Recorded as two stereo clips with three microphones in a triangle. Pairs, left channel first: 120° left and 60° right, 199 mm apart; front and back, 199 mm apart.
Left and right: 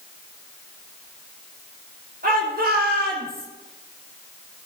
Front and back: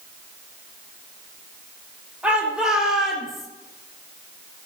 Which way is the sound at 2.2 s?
95° right.